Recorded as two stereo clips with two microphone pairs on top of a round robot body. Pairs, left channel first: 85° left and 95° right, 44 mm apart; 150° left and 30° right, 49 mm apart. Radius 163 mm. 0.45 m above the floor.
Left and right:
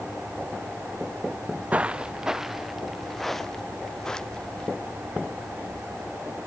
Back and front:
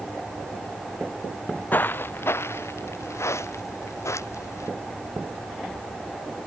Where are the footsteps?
160° right; by 4.7 s 160° left.